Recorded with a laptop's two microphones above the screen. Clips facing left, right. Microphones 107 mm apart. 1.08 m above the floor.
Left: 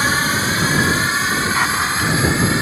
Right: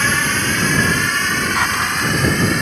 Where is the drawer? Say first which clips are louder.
Even; centre (ahead or behind).